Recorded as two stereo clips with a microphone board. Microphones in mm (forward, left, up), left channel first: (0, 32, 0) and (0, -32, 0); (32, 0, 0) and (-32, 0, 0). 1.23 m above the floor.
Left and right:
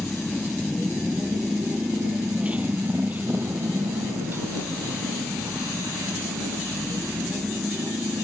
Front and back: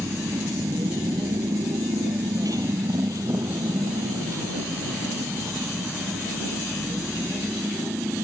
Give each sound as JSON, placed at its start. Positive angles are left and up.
{"t": 0.0, "sound": "a motorcycle", "azimuth_deg": 165}